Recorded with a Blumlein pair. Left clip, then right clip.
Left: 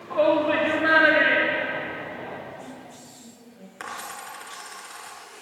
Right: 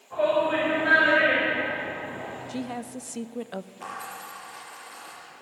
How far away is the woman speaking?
About 0.5 m.